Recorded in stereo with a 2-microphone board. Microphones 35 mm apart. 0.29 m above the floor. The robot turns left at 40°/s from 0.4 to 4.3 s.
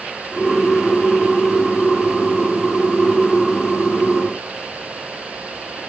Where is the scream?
I don't hear a scream.